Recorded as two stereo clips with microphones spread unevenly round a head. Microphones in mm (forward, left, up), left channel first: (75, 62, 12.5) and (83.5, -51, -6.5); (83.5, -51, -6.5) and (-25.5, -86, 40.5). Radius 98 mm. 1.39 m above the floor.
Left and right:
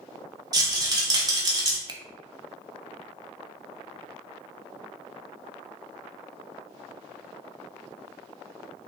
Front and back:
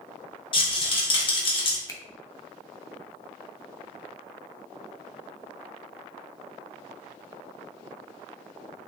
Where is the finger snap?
40° right, 0.7 m.